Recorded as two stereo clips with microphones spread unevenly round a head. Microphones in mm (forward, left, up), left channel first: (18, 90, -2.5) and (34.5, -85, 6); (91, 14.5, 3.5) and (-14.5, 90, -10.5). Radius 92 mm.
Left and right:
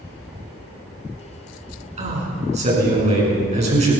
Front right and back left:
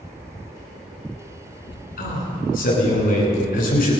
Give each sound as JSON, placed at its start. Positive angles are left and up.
{"t": 2.0, "sound": "a man speaking", "azimuth_deg": -35, "distance_m": 9.5}